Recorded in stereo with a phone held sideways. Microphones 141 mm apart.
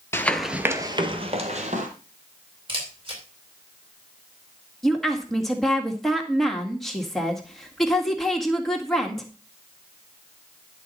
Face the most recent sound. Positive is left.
turn(degrees=0)  # may be behind; listen again after turning